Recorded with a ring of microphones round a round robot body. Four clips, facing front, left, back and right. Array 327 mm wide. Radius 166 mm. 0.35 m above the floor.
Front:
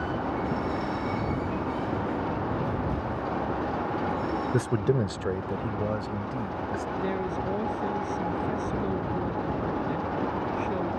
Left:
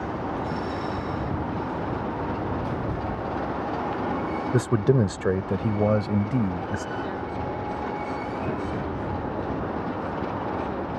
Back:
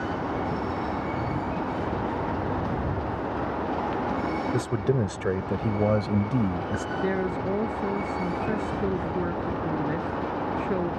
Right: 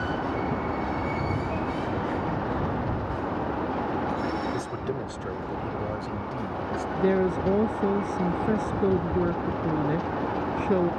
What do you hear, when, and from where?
4.5 s a man speaking: 70° left; by 6.8 s 140° left
7.0 s a woman speaking: 105° right